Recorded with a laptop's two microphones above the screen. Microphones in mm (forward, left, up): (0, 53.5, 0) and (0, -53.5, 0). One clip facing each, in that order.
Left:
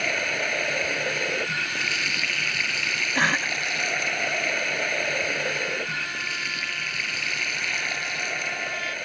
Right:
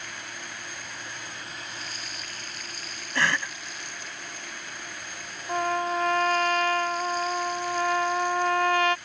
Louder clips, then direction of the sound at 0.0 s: Left 12 dB; 75° left (ahead or behind).